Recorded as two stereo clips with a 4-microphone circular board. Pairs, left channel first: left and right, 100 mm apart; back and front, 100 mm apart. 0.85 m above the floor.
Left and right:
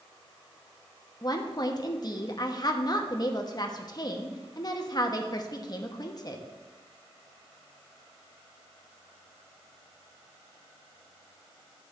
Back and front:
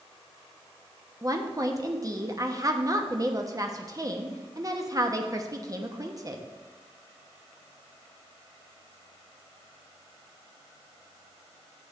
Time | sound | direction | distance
1.2 | a woman speaking | 50° left | 1.0 m